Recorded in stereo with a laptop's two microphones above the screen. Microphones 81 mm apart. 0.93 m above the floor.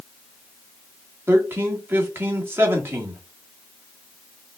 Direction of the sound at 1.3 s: 30° right (ahead or behind).